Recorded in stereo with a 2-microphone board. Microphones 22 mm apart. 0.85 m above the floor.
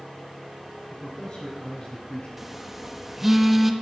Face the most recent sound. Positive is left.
turn(degrees=-5)  # may be behind; listen again after turning